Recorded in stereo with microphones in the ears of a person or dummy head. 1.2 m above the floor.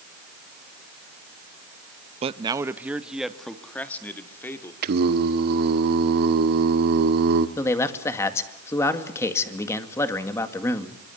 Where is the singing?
55° right (ahead or behind), 1.4 m.